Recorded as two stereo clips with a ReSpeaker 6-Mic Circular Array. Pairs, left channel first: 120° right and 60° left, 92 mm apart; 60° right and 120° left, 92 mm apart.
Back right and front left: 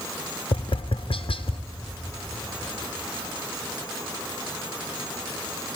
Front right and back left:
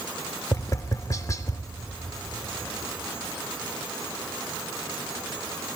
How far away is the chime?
I don't hear a chime.